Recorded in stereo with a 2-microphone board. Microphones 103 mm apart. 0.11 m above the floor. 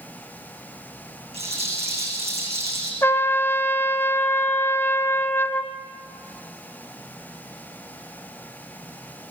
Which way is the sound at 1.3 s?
80° right.